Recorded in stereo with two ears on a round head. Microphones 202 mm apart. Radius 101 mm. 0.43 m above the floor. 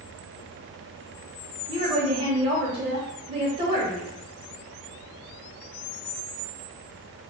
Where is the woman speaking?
25° right (ahead or behind), 1.0 m.